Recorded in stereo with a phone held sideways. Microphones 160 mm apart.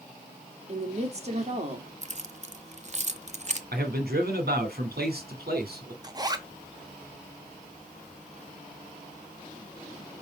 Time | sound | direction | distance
0.7 | a woman speaking | 45° right (ahead or behind) | 2 m
2.0 | keys jangling | 45° right (ahead or behind) | 0.7 m
3.7 | a man speaking | 80° right | 2.5 m
6.0 | a zipper | 25° right (ahead or behind) | 1.1 m